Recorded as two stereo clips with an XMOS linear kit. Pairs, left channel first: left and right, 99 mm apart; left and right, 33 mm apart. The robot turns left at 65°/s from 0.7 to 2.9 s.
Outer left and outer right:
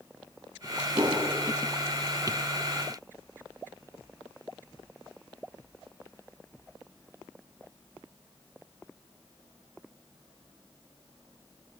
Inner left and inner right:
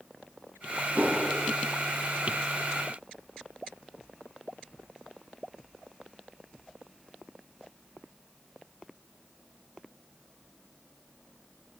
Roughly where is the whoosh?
Right.